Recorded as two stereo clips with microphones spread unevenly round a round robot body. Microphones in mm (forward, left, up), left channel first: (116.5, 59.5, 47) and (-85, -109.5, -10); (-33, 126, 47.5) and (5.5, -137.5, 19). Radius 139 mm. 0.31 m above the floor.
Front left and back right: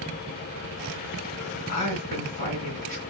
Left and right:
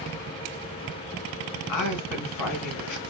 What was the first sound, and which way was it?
A woman speaking, 110° left.